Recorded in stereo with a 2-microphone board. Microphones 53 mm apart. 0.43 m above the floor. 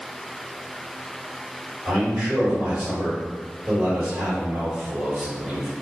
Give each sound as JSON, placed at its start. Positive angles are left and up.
{"t": 1.9, "sound": "a man speaking", "side_deg": -35, "distance_m": 1.8}